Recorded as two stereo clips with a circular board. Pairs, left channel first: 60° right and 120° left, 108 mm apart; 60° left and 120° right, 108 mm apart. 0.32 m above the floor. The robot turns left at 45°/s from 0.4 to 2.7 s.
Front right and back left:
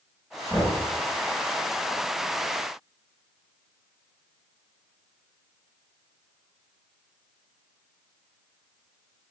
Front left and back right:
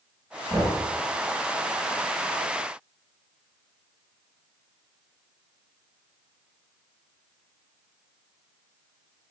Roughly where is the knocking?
Behind right.